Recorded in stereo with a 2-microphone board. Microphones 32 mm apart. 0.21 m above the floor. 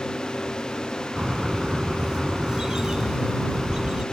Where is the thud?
I don't hear a thud.